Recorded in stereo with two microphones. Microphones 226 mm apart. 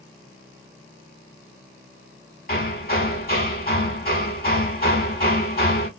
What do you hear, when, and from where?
2.5 s hammering: 45° left (ahead or behind), 0.9 m